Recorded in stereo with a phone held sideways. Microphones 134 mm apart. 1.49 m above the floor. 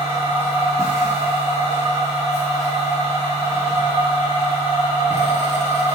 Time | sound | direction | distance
0.0 | a machine running | 20° right (ahead or behind) | 1.1 m